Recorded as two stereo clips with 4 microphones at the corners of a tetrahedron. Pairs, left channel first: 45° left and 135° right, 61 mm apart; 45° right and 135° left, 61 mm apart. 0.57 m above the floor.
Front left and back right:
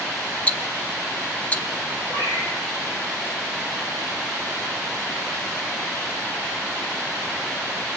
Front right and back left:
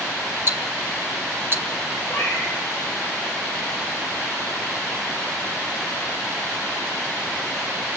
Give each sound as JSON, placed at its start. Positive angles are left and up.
{"t": 0.5, "sound": "ticking", "azimuth_deg": 100, "distance_m": 0.9}
{"t": 2.1, "sound": "a cat meowing", "azimuth_deg": 0, "distance_m": 6.0}